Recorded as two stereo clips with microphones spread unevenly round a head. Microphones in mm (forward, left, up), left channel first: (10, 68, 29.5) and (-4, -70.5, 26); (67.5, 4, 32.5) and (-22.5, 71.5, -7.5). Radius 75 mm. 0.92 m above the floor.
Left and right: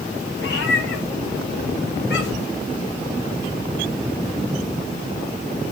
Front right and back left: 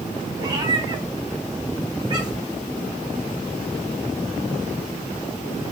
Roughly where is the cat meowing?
Left.